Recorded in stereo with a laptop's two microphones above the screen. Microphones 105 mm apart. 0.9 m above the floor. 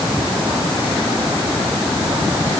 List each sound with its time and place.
Only background noise.